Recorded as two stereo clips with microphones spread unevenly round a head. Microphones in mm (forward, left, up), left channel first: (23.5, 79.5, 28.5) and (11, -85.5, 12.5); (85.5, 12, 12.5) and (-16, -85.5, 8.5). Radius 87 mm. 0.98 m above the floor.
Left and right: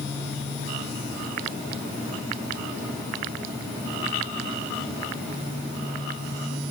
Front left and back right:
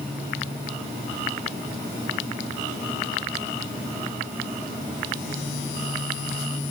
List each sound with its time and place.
Only background noise.